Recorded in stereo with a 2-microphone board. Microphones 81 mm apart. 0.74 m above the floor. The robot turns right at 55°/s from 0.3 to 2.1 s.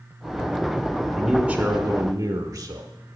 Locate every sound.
1.1 s a man speaking: straight behind, 0.7 m; by 2.9 s 130° right, 0.7 m